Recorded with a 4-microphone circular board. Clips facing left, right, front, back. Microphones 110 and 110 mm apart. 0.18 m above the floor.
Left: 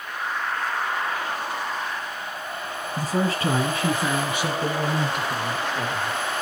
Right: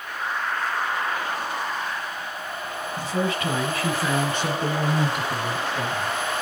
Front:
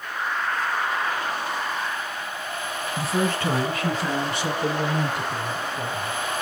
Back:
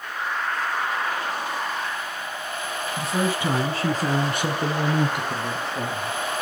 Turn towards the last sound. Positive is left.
turn(degrees=-170)